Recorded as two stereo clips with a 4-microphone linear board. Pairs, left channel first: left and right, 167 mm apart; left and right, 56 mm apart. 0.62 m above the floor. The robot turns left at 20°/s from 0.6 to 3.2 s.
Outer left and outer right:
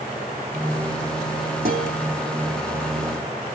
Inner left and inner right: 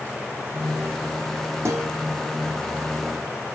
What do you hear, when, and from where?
1.6 s a guitar: 70° right (ahead or behind), 7 m; by 1.9 s 65° right (ahead or behind), 7 m